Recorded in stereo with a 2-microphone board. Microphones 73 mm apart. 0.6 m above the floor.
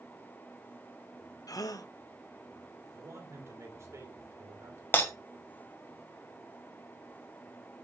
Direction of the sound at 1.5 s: 60° left (ahead or behind).